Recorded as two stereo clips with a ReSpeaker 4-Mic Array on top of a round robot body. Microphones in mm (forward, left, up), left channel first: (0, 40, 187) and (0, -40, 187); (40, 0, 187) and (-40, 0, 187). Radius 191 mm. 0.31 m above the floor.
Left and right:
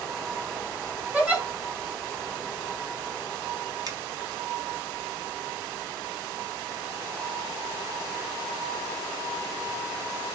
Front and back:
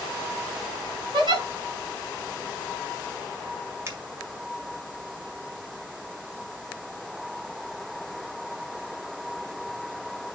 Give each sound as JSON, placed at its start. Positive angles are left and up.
{"t": 1.1, "sound": "a giggle", "azimuth_deg": -165, "distance_m": 3.0}
{"t": 3.9, "sound": "a finger snap", "azimuth_deg": -125, "distance_m": 2.5}